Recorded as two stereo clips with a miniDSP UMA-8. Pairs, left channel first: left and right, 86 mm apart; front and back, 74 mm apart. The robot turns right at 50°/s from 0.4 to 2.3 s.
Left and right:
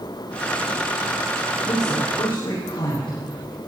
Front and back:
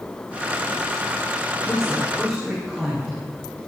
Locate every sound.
1.6 s a woman speaking: 70° left, 7 m; by 3.2 s 105° left, 7 m